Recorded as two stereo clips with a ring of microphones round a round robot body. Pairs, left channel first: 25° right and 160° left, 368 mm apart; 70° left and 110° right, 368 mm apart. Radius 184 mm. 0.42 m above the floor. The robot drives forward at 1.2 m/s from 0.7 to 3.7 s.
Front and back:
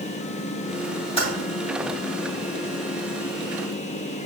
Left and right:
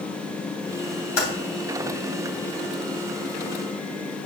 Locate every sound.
1.2 s typing on a keyboard: 50° left, 3 m; by 1.3 s 55° left, 3 m